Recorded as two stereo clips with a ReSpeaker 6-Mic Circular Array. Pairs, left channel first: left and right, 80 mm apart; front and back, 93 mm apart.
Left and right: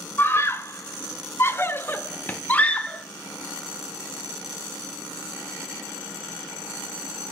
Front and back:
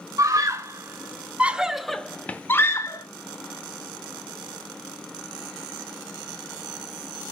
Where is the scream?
140° left, 1.2 m; by 3.0 s 20° left, 0.9 m.